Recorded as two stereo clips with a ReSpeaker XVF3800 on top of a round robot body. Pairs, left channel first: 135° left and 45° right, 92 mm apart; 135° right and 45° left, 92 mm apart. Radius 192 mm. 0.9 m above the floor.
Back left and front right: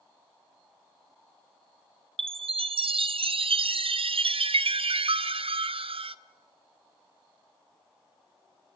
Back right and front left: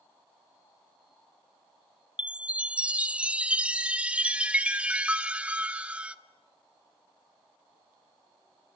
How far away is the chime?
About 0.7 m.